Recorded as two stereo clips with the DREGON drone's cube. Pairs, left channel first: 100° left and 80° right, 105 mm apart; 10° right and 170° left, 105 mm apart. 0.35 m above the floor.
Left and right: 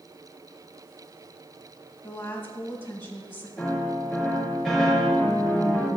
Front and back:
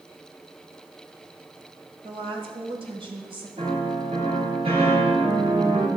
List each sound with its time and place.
2.0 s a woman speaking: 170° left, 1.8 m
3.6 s a piano: 175° right, 5 m